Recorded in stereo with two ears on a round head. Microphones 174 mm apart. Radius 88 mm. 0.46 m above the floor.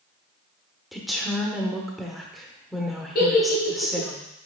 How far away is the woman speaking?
About 1.0 m.